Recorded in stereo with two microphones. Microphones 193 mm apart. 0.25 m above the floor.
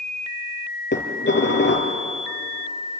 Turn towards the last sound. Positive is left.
turn(degrees=70)  # may be behind; listen again after turning